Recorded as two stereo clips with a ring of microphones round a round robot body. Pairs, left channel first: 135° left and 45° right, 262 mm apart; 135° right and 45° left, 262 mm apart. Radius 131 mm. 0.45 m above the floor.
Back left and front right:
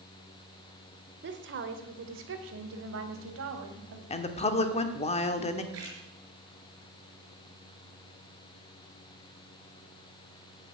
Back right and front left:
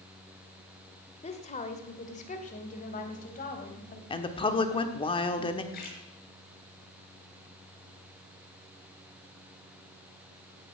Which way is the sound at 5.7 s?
80° right.